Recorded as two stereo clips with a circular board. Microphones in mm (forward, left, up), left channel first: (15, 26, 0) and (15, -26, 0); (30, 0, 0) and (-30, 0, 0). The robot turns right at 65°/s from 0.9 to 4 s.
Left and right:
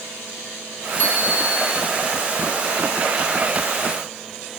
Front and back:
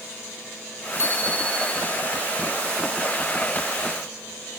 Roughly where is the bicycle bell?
Ahead left.